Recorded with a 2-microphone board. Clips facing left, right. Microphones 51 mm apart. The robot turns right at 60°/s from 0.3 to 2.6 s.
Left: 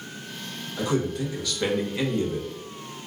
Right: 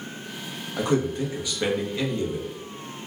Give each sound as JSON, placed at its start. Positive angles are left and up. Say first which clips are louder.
{"t": 0.8, "sound": "a man speaking", "louder": "right 2 dB", "azimuth_deg": -60, "distance_m": 0.9}